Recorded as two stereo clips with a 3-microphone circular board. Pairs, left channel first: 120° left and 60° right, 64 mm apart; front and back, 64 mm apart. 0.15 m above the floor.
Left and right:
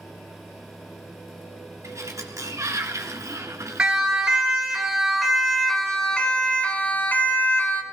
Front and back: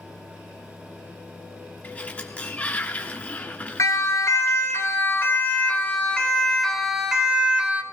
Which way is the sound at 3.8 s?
15° left.